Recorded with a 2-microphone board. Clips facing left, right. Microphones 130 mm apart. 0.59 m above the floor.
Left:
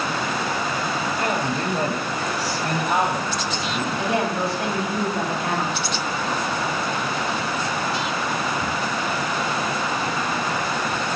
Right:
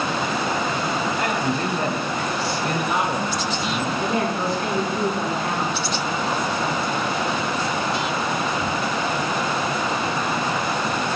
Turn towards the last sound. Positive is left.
turn(degrees=75)  # may be behind; listen again after turning